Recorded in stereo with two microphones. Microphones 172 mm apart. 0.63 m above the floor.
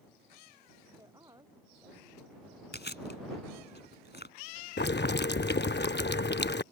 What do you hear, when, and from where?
1.0 s a woman speaking: 20° right (ahead or behind)
2.7 s chewing: 80° left
4.8 s boiling: 80° left